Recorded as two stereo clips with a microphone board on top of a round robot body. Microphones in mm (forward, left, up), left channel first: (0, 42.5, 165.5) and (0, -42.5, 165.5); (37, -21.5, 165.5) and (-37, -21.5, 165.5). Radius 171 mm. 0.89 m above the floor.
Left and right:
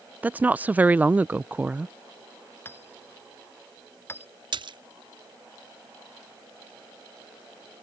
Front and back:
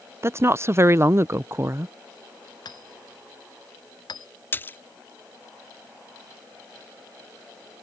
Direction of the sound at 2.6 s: 25° left.